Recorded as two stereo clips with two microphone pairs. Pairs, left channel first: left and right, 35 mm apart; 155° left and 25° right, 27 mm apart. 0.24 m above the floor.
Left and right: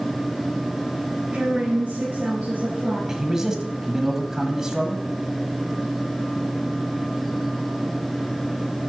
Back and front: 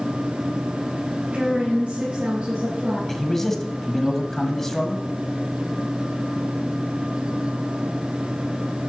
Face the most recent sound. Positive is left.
turn(degrees=-150)